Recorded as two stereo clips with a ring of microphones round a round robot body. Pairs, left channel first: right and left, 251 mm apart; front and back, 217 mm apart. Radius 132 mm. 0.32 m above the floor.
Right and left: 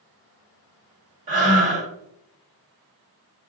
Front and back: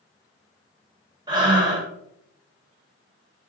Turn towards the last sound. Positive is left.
turn(degrees=120)